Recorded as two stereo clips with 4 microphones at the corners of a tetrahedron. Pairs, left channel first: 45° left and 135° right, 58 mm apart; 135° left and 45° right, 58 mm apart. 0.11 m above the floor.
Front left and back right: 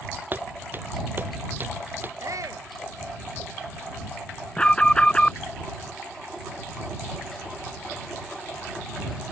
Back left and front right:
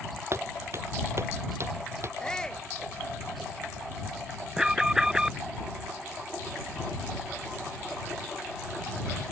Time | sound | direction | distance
0.3 | footsteps | 85° right | ?
2.2 | a shout | 145° right | ?
4.6 | an alarm | 10° left | ?